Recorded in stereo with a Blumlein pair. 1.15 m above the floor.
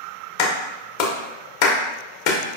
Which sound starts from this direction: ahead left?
A clap, at 0.4 s.